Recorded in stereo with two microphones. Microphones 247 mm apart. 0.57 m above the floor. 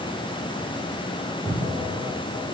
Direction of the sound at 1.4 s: Centre (ahead or behind).